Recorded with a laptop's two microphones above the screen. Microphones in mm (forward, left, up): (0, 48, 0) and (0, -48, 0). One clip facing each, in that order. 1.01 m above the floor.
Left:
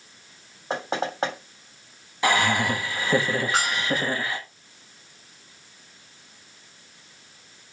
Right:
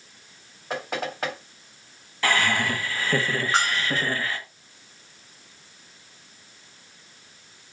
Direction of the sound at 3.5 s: 30° right (ahead or behind).